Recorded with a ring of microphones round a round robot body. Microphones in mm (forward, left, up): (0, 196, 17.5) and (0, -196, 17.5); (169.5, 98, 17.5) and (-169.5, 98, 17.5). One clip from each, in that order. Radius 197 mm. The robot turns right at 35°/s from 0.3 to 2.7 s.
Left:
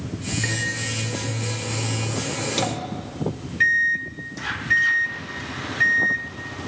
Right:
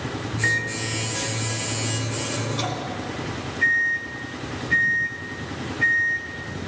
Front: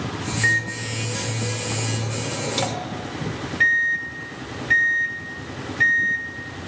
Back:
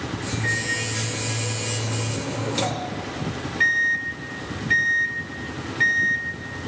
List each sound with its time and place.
0.4 s a microwave: 5° right, 2.0 m; by 6.2 s 75° left, 2.0 m